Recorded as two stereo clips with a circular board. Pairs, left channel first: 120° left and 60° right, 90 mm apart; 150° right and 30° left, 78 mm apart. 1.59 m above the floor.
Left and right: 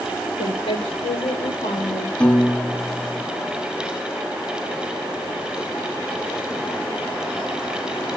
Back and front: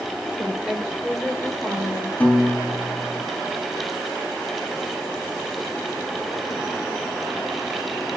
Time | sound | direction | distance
0.4 | a woman speaking | 115° left | 5.5 m
2.2 | a piano | 175° left | 1.1 m